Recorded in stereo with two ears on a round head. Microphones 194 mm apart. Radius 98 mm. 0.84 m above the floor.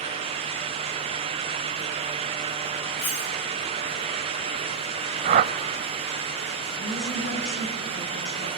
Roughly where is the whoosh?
Right.